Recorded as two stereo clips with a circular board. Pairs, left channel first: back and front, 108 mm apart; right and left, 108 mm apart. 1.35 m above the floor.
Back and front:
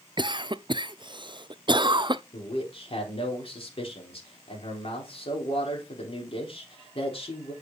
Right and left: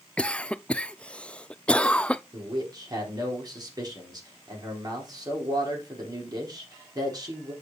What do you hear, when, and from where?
0.2 s a cough: 15° right, 0.5 m
2.3 s a man speaking: 145° left, 4 m